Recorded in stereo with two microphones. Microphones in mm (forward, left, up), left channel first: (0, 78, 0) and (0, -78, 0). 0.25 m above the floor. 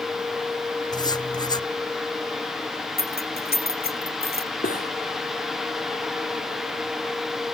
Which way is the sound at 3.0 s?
85° left.